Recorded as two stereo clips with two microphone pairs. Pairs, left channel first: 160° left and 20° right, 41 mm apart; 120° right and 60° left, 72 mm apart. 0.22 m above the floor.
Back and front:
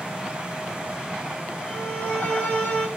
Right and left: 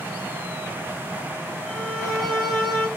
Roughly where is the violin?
Behind left.